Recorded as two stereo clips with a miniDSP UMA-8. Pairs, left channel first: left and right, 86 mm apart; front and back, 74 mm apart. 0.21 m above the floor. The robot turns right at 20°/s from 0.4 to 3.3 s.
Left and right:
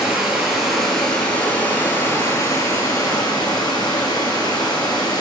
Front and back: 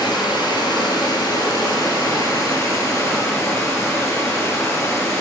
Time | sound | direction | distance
0.0 | running water | 5° right | 1.5 m